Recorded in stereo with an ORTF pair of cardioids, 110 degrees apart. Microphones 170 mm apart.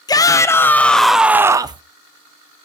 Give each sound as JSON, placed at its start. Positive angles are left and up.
{"t": 0.1, "sound": "a shout", "azimuth_deg": 20, "distance_m": 1.5}